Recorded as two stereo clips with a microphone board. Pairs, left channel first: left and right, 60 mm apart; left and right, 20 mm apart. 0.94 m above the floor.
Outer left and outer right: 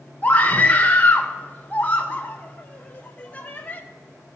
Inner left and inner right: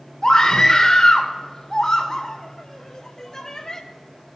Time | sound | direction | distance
0.2 | a scream | 25° left (ahead or behind) | 1.0 m